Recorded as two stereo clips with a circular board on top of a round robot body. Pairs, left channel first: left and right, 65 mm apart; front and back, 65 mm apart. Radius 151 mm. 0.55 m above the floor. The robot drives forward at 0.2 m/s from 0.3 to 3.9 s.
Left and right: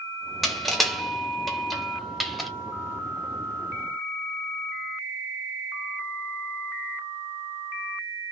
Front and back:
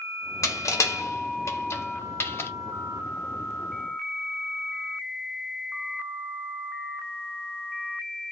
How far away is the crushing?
About 1.2 m.